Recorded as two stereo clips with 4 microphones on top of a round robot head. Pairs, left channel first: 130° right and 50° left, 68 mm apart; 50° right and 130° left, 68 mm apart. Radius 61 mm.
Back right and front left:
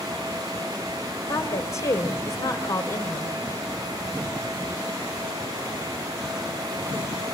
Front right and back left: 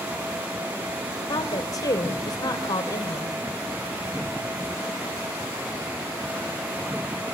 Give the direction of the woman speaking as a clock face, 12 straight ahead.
3 o'clock.